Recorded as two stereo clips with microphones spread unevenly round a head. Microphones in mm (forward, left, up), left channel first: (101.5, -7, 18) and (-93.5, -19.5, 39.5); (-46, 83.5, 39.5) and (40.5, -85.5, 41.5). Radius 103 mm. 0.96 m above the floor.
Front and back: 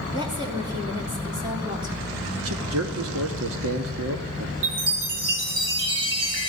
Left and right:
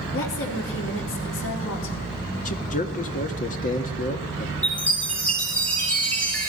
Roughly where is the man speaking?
Behind.